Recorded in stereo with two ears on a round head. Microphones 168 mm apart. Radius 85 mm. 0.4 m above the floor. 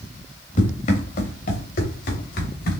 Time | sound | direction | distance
0.6 | running footsteps | 45° left (ahead or behind) | 2 m